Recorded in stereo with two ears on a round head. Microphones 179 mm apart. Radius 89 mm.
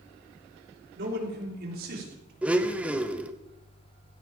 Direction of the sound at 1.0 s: 60° right (ahead or behind).